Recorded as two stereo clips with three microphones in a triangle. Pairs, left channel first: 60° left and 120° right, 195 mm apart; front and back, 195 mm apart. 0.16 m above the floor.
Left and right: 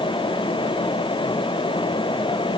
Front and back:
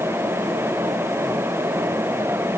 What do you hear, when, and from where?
Only background noise.